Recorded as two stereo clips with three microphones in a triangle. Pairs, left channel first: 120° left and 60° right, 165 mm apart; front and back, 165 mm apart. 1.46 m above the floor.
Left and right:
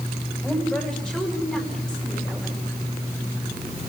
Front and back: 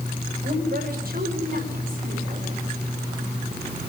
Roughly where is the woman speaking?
Behind right.